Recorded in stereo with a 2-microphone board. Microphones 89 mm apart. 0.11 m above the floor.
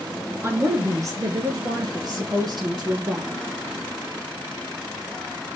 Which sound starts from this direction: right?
A woman speaking, at 0.4 s.